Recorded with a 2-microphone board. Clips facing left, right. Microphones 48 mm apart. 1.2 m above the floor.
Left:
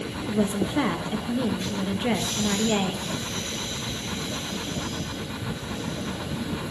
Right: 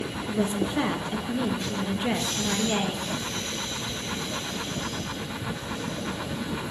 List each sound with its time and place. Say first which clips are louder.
0.3 s a woman speaking: left 2 dB; 10° left (ahead or behind), 0.8 m